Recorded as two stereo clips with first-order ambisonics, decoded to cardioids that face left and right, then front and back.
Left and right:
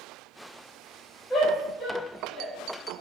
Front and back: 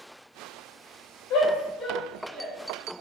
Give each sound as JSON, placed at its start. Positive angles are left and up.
{"t": 1.3, "sound": "a shout", "azimuth_deg": 15, "distance_m": 0.8}